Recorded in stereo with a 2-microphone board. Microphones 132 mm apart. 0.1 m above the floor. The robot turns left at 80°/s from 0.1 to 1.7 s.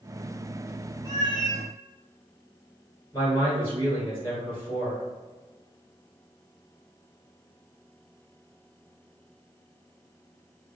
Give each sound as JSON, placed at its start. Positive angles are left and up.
{"t": 1.1, "sound": "a cat meowing", "azimuth_deg": 130, "distance_m": 0.8}
{"t": 3.1, "sound": "a man speaking", "side_deg": 20, "distance_m": 1.3}